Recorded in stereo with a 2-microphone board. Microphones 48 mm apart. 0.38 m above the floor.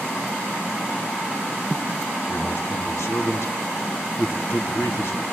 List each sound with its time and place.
2.3 s a man speaking: 70° left (ahead or behind), 2.5 m